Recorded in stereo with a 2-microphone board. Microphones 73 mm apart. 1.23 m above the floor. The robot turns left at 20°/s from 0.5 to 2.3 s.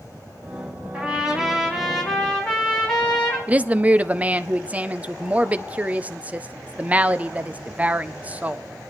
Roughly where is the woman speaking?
Centre.